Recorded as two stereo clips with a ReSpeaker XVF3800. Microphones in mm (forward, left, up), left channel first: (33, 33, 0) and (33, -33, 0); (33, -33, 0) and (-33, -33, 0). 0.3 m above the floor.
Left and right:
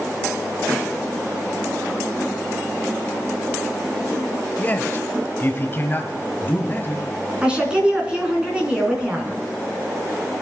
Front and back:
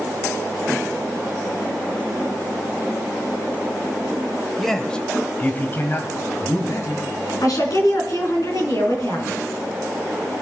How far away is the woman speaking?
About 3.5 m.